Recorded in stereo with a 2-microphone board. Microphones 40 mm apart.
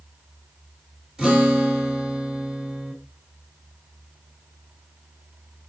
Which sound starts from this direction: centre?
A guitar, at 1.2 s.